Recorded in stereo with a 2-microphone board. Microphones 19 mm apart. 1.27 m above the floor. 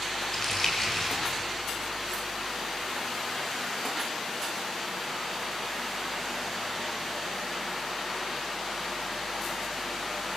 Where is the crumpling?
30° left (ahead or behind), 5 m.